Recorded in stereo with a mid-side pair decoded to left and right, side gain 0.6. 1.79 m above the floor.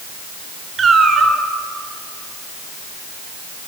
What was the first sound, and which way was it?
A cat meowing, 30° right.